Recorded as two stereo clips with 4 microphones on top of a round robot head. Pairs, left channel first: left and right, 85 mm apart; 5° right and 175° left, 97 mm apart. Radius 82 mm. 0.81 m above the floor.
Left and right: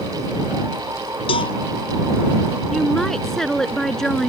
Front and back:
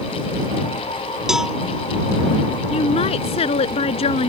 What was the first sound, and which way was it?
A cowbell, 90° left.